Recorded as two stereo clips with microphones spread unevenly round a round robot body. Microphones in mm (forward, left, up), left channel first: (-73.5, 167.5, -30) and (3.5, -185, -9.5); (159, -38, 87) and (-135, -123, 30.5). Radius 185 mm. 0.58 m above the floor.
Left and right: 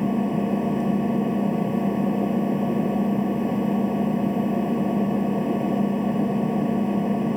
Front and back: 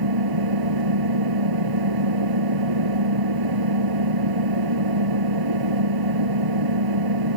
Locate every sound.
0.0 s an engine running: 165° right